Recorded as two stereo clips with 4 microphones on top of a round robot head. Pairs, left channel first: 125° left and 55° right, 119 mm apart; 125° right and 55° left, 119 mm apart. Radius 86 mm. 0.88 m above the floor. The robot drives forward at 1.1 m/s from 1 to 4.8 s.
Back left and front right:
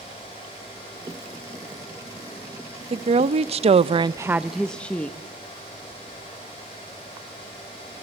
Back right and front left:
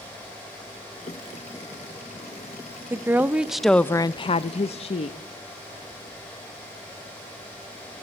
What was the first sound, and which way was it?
A woman speaking, 15° right.